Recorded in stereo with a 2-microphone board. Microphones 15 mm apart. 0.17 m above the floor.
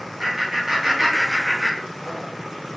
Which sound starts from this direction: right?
Laughter, at 0.2 s.